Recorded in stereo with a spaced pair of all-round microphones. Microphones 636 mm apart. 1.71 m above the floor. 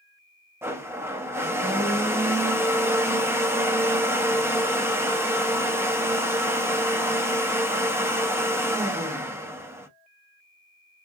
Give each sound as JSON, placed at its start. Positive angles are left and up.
{"t": 0.6, "sound": "a blender", "side_deg": -5, "distance_m": 0.7}